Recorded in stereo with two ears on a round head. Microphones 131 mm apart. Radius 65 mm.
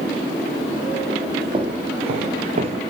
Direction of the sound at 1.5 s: 35° right (ahead or behind).